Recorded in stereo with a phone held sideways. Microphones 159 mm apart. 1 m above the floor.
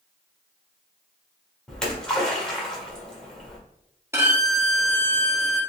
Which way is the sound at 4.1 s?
15° right (ahead or behind).